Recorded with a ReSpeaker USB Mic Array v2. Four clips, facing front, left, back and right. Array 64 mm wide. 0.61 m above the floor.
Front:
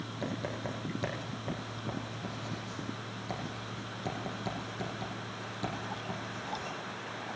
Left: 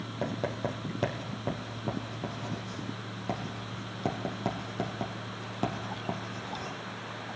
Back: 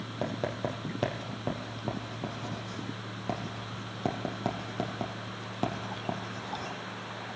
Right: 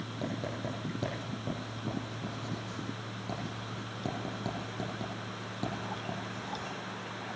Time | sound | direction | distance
0.2 | writing | 140° left | 3.5 m